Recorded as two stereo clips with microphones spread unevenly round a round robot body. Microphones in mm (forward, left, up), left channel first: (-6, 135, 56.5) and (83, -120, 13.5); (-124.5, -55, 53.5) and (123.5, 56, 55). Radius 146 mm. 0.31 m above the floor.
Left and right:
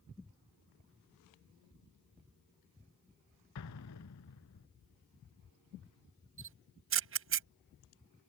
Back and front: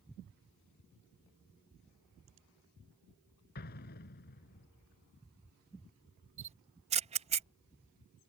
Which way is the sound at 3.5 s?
145° left.